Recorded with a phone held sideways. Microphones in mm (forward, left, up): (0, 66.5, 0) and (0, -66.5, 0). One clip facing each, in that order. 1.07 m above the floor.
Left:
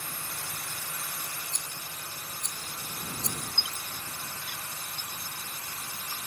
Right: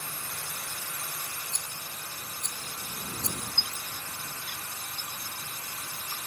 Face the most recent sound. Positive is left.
turn(degrees=-50)  # may be behind; listen again after turning